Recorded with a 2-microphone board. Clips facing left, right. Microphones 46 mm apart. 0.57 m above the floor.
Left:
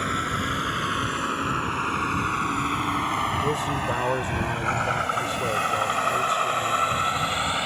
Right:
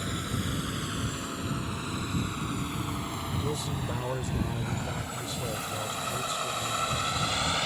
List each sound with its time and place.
0.0 s a vehicle: 55° left (ahead or behind); by 7.7 s 20° left (ahead or behind)
3.4 s a man speaking: 45° left (ahead or behind)